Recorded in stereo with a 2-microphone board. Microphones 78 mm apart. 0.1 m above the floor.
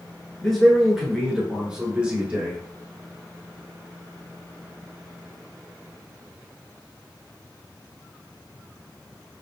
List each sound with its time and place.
0.4 s a man speaking: 5° left (ahead or behind), 1.2 m; by 2.6 s 15° right (ahead or behind), 1.4 m